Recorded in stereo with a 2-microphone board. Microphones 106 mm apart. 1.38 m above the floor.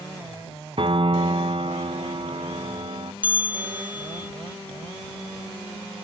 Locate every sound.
0.8 s a piano: 55° right (ahead or behind)
3.2 s a bell: 15° right (ahead or behind)